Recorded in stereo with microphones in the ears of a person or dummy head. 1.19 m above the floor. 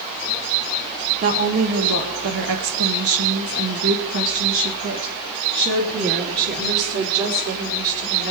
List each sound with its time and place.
1.2 s a woman speaking: 40° right (ahead or behind), 1.6 m; by 8.3 s 45° right (ahead or behind), 3.5 m